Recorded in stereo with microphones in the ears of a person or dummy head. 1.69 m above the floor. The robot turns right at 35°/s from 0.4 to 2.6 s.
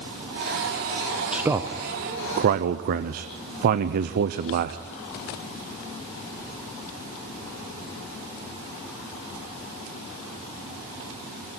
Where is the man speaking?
175° right, 0.6 m; by 4.8 s 130° right, 0.6 m.